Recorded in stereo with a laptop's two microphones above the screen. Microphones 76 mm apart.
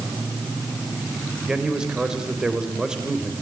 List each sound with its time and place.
1.5 s a man speaking: 10° right (ahead or behind), 3.5 m